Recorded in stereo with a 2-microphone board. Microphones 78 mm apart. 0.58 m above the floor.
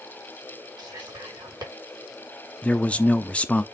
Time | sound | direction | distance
0.8 | whispering | 55° right (ahead or behind) | 6 m
2.6 | a man speaking | 15° left (ahead or behind) | 0.6 m